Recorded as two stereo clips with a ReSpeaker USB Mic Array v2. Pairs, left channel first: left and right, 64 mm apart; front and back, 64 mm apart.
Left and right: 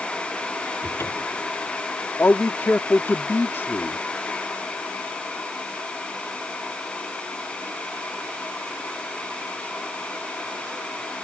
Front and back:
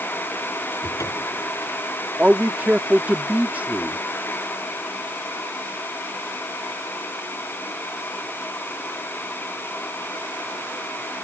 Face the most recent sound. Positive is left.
turn(degrees=125)